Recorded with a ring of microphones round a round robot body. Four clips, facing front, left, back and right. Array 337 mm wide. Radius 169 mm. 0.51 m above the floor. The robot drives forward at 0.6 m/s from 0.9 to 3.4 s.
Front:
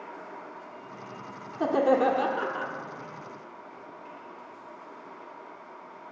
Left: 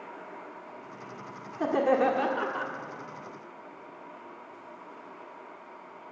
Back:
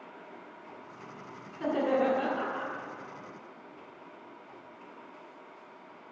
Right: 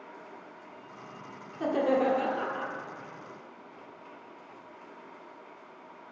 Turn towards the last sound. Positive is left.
turn(degrees=95)